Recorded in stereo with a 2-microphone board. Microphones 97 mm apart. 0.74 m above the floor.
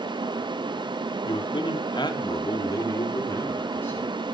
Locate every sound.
1.2 s a man speaking: 60° left (ahead or behind), 1.6 m; by 4.3 s 20° left (ahead or behind), 3.5 m